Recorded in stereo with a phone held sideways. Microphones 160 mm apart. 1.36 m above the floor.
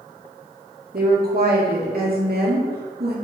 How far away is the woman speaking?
About 2 m.